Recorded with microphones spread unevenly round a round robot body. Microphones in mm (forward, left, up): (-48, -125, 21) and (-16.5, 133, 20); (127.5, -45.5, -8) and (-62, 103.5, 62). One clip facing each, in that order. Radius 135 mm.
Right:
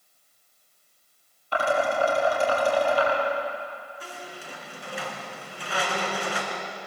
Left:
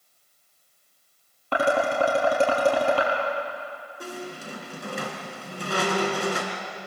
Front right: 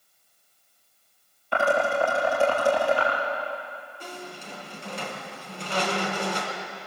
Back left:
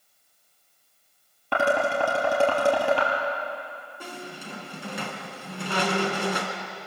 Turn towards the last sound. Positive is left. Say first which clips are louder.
# left 6 dB, back left 2 dB
turn(degrees=130)